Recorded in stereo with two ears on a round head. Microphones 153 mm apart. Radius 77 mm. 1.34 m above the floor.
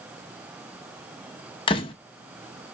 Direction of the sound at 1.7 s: 30° left (ahead or behind).